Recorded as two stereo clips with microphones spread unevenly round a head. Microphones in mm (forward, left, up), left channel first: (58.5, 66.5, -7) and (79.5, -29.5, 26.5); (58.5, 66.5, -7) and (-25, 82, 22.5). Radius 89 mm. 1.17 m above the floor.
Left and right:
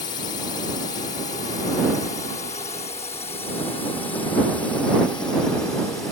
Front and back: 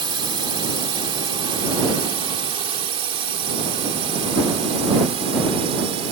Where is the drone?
145° left; by 6.1 s 175° right.